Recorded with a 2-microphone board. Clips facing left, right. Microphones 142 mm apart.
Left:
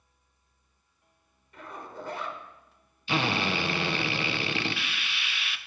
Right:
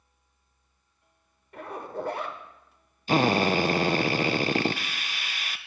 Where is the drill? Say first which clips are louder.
Right 6 dB; 45° right (ahead or behind), 0.7 m.